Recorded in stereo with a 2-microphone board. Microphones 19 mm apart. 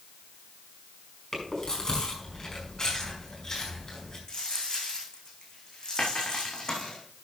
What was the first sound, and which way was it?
Chewing, 35° left (ahead or behind).